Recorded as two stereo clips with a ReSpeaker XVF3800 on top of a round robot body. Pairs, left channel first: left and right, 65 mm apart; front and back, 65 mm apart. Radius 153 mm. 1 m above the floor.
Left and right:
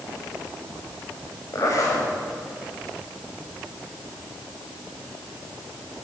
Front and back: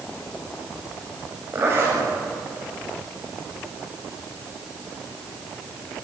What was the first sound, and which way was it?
A zipper, 125° left.